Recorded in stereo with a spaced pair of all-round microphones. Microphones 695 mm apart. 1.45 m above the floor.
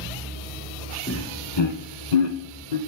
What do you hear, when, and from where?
1.1 s laughter: 15° left (ahead or behind), 1.5 m; by 2.8 s 80° left, 1.4 m